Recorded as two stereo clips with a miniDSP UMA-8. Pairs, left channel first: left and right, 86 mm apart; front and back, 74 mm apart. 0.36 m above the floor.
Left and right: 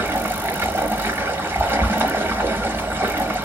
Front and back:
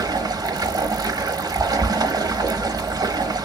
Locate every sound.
0.0 s running water: 155° right, 0.9 m